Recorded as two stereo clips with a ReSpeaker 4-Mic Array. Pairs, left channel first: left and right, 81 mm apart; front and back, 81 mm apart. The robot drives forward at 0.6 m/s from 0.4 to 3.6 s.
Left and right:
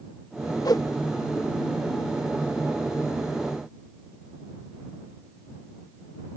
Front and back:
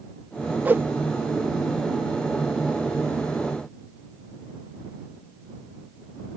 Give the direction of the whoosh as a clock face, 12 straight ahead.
8 o'clock.